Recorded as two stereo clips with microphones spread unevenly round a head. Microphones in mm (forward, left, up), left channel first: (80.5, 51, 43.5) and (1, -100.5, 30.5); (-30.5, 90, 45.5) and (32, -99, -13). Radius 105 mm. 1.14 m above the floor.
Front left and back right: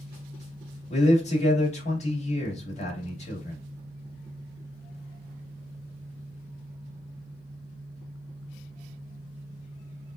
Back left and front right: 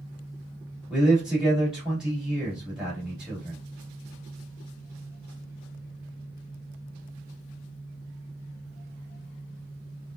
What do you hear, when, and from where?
0.9 s a man speaking: 15° left, 1.9 m